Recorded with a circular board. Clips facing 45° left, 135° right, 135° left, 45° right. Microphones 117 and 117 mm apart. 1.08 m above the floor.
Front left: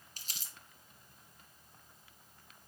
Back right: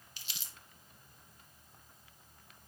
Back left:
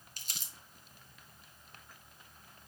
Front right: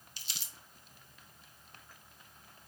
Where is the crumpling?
95° left, 1.3 m.